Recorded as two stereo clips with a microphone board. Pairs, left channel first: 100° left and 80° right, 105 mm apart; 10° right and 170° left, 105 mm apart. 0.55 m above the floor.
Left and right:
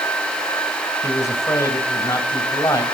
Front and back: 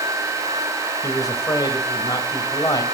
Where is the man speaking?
45° left, 2.5 m.